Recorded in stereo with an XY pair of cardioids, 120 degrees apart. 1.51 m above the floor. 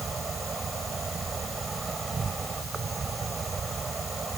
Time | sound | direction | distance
0.0 | an insect | 30° right | ?